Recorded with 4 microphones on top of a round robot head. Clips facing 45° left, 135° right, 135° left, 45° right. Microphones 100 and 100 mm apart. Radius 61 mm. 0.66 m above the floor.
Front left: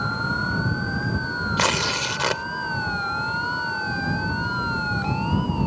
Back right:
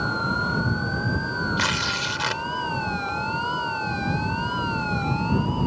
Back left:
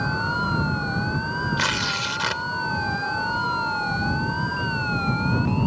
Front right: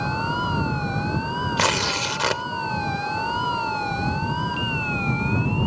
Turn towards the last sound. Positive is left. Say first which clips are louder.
# front left 3 dB, front right 3 dB
turn(degrees=0)